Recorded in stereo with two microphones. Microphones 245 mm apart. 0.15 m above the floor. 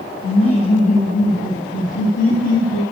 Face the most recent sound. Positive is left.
turn(degrees=75)  # may be behind; listen again after turning